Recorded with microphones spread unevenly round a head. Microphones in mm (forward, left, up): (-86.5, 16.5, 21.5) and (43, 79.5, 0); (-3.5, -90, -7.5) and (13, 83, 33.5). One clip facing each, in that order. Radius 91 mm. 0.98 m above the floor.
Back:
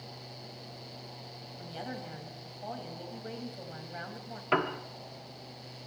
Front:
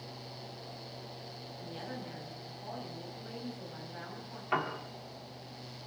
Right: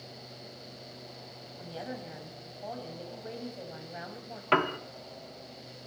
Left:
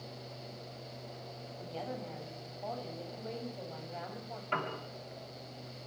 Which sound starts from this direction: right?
A piano, at 4.5 s.